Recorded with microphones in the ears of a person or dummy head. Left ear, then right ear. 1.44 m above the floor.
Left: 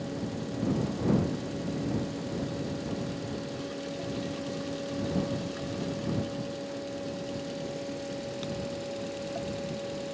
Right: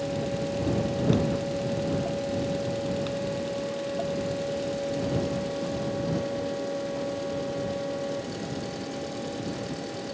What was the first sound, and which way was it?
Only background noise.